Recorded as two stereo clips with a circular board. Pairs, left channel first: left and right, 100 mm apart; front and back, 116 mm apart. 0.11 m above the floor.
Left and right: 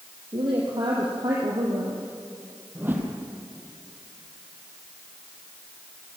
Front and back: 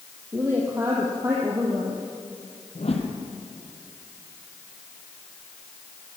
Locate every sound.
0.3 s a woman speaking: 115° right, 4 m
2.8 s a whoosh: 20° right, 3.5 m